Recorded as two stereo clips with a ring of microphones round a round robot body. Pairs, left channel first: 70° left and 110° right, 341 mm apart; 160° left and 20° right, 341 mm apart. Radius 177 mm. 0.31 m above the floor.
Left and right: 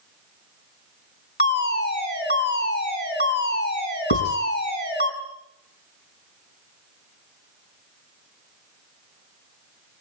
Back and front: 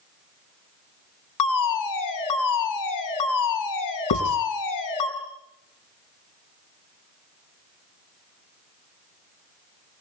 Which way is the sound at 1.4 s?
125° left.